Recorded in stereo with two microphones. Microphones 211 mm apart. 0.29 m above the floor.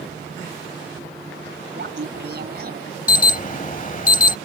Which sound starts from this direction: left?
An alarm, at 3.1 s.